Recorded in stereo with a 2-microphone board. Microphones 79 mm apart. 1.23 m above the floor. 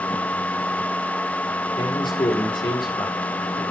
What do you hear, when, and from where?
1.8 s a man speaking: 80° left, 4.5 m